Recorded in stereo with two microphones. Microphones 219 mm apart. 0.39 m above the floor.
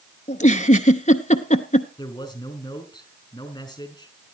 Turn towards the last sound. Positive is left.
turn(degrees=15)  # may be behind; listen again after turning